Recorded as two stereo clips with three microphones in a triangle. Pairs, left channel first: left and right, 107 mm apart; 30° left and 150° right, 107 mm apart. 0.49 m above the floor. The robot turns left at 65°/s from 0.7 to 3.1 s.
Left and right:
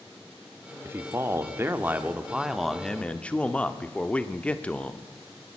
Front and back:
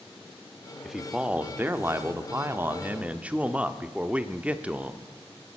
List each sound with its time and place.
0.8 s a man speaking: 60° right, 0.7 m; by 5.1 s 150° left, 0.7 m